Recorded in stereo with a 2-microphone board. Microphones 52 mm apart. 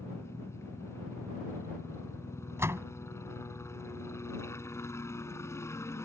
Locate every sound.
0.0 s a helicopter: 70° left (ahead or behind)
2.6 s a door slam: 65° right (ahead or behind)